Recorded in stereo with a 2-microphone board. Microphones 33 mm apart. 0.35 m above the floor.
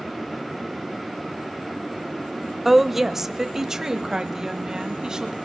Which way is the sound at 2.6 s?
5° right (ahead or behind).